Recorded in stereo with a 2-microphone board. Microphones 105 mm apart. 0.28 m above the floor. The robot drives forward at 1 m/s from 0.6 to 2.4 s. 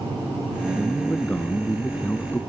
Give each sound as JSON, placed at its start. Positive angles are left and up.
{"t": 0.8, "sound": "a man speaking", "side_deg": 10}